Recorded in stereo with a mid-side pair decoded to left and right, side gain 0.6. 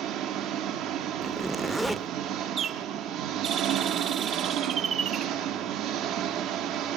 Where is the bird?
45° right, 1.4 m.